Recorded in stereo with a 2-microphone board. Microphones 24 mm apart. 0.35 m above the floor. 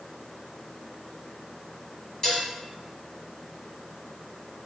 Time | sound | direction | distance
2.2 | dishes clattering | 15° left (ahead or behind) | 1.9 m